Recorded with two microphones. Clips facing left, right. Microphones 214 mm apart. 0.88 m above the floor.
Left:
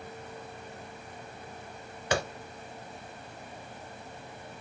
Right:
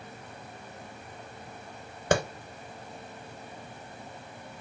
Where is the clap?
50° right (ahead or behind), 0.8 m.